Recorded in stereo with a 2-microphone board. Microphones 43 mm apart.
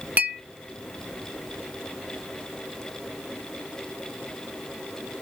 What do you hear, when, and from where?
0.2 s a clink: 35° right (ahead or behind), 0.9 m